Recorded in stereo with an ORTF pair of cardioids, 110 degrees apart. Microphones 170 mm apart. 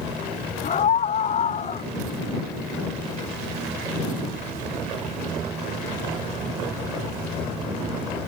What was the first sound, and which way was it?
A scream, 45° left.